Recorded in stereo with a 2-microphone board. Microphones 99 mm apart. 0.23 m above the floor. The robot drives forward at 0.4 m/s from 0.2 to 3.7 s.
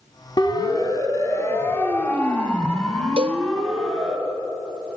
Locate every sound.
0.4 s a siren: 45° left (ahead or behind), 2.5 m; by 4.2 s 5° right (ahead or behind), 4.5 m
3.2 s a cowbell: 80° right, 1.1 m